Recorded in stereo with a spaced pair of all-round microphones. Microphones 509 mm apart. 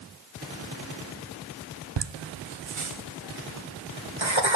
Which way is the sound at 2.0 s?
60° right (ahead or behind).